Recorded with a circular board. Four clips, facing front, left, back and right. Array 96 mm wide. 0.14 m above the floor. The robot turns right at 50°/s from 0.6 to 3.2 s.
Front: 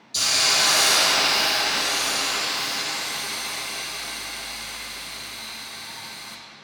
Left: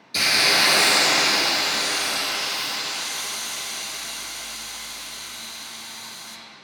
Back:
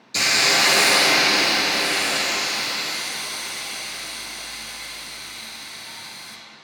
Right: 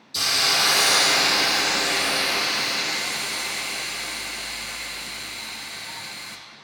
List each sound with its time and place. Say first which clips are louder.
0.1 s a hiss: left 3 dB, back 4 dB; 135° left, 0.6 m; by 6.4 s 95° right, 0.6 m